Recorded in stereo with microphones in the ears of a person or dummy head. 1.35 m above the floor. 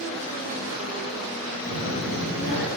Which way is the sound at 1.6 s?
85° right.